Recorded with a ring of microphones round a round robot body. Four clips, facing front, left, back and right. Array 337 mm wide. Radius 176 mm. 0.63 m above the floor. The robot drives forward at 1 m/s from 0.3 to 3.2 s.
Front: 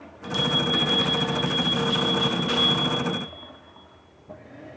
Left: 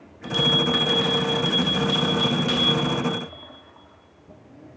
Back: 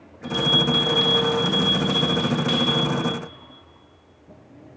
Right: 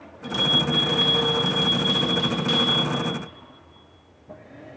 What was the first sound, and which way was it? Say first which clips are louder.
A bell: left 2 dB, back 3 dB; 25° left.